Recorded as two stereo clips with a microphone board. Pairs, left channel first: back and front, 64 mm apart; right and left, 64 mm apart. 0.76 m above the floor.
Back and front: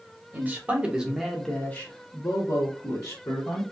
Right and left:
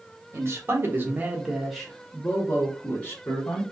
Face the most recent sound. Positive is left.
turn(degrees=-150)